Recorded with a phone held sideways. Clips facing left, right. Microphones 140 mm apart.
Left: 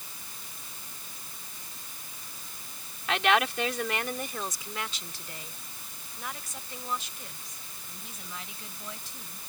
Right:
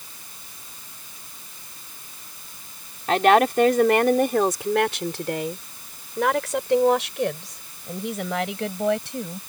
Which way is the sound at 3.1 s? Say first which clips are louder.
Right 9 dB; 45° right (ahead or behind).